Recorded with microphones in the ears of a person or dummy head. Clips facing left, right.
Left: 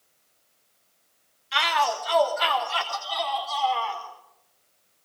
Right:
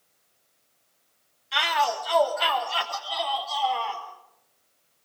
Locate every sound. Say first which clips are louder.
1.5 s a shout: even; centre (ahead or behind), 3 m